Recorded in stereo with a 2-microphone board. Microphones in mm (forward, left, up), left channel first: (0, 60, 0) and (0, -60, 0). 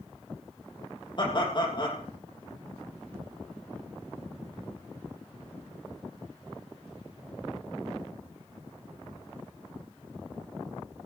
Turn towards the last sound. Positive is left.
turn(degrees=40)  # may be behind; listen again after turning